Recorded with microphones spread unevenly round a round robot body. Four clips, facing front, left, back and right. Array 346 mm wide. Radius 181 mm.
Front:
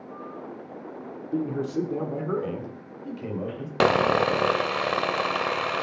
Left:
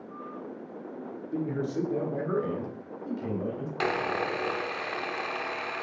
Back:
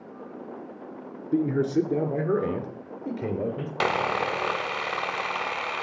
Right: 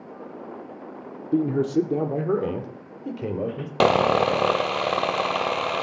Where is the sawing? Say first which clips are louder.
Right 11 dB, front 5 dB; 50° right, 0.8 m.